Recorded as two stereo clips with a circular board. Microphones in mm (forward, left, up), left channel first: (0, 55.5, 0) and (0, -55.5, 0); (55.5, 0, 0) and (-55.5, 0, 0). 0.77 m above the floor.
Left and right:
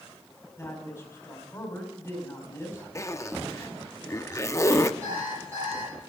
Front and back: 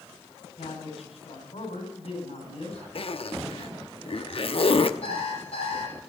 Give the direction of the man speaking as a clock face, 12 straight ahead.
11 o'clock.